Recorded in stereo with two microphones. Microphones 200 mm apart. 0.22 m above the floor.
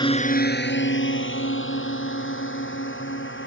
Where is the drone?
25° left (ahead or behind); by 3.5 s 75° left (ahead or behind).